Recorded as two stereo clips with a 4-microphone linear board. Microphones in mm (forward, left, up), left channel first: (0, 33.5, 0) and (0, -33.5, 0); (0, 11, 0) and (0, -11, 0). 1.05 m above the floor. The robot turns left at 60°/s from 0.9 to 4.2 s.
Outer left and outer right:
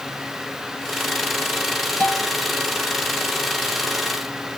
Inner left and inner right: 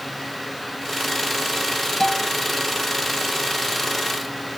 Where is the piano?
25° left (ahead or behind); by 2.3 s 5° left (ahead or behind).